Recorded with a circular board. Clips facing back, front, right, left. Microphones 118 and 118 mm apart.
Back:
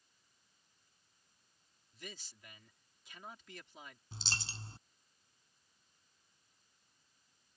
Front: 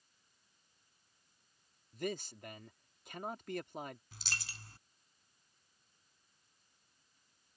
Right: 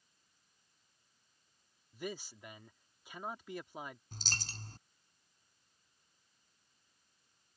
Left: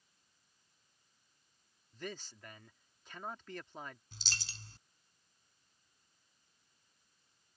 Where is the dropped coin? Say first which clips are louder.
Back 2 dB, right 4 dB; 125° right.